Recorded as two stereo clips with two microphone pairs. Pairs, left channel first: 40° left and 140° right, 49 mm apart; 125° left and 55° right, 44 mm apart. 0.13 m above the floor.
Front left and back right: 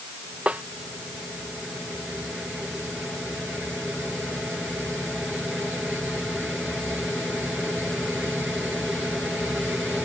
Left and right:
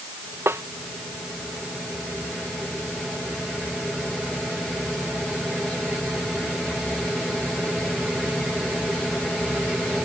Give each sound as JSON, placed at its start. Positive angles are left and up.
{"t": 0.5, "sound": "a snare drum", "azimuth_deg": -75}